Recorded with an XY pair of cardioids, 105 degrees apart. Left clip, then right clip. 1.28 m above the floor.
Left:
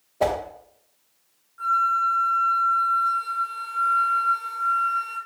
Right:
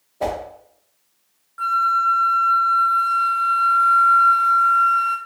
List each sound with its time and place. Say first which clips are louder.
0.2 s a whoosh: left 2 dB; 35° left, 0.9 m
1.6 s a flute: right 3 dB; 65° right, 0.6 m